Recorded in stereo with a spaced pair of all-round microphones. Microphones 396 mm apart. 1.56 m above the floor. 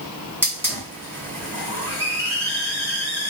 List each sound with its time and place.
0.4 s a hiss: 5° right (ahead or behind), 1.3 m